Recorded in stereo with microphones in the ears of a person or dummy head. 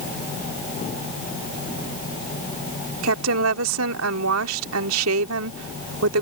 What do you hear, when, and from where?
3.0 s a woman speaking: 80° right